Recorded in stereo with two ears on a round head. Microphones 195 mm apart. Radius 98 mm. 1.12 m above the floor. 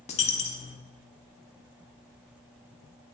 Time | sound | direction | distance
0.1 | a dropped coin | 30° left (ahead or behind) | 1.1 m